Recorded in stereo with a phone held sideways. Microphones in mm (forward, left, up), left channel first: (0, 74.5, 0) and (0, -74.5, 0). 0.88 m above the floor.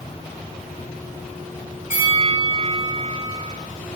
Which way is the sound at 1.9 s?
20° right (ahead or behind).